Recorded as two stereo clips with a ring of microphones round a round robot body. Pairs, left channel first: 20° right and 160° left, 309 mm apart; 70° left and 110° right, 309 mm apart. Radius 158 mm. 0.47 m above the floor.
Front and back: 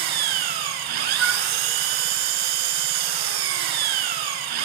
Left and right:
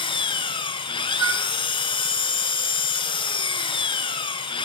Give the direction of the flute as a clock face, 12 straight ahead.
5 o'clock.